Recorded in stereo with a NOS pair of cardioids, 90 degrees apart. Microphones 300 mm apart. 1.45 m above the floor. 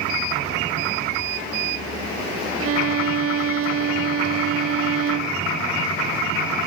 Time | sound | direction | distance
2.6 | a violin | 50° right | ?